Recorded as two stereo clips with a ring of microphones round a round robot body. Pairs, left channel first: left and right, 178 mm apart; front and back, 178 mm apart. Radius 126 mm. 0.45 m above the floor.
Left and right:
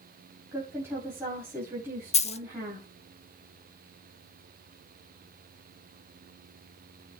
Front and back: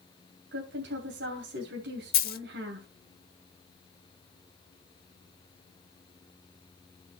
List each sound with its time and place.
0.5 s a woman speaking: 170° right, 2.5 m
2.1 s a dropped coin: 35° left, 0.8 m